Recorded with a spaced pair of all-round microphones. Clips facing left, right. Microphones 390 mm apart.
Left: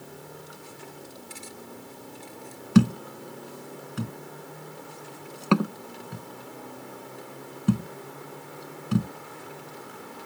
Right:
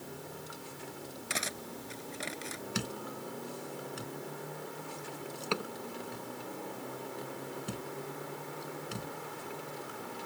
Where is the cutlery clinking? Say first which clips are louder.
Right 1 dB; 85° right.